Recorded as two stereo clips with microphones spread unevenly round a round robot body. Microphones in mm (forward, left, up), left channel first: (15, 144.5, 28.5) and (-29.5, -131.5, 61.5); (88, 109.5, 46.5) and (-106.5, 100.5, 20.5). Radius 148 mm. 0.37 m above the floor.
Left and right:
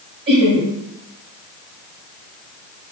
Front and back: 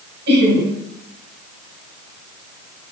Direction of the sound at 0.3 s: 150° right.